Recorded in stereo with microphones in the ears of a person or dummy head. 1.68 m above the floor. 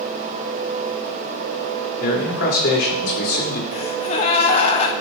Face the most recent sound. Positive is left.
turn(degrees=35)  # may be behind; listen again after turning